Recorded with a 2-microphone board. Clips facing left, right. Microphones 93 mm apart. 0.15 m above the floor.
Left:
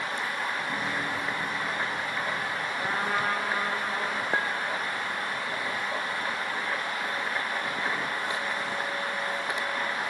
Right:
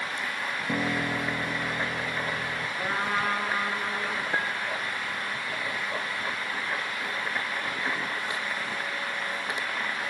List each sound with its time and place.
0.7 s a piano: 55° right (ahead or behind), 2.5 m
2.8 s a trumpet: 10° left (ahead or behind), 8 m
4.3 s a clink: 30° left (ahead or behind), 4 m